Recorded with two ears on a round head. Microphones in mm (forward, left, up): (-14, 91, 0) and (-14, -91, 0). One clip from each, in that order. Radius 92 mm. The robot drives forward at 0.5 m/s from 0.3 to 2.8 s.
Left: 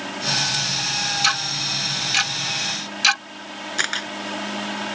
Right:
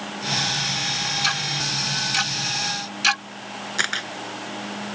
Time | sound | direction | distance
1.2 | ticking | 45° left (ahead or behind) | ?
3.8 | a camera shutter | 10° left (ahead or behind) | ?